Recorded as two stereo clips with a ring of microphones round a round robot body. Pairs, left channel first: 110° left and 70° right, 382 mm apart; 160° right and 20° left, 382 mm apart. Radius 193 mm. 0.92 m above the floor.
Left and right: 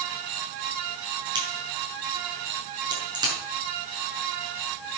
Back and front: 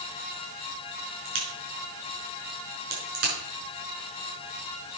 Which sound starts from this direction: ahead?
A crack, at 1.2 s.